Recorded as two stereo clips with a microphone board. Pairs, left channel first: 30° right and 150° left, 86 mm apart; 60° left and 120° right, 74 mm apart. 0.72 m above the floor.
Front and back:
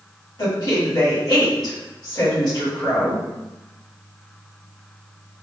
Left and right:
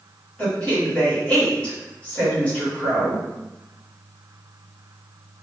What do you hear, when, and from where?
0.4 s a woman speaking: 10° right, 1.8 m